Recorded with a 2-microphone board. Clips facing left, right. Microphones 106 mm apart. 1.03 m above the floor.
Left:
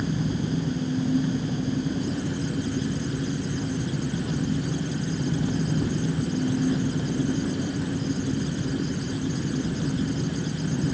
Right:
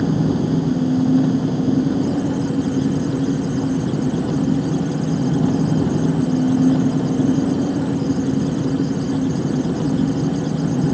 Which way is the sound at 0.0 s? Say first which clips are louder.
Right 9 dB; 80° right.